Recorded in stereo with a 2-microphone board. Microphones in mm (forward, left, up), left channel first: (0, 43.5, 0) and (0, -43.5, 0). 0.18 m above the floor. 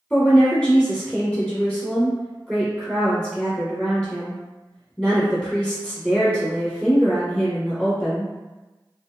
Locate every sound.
0.1 s a woman speaking: 15° left (ahead or behind), 1.4 m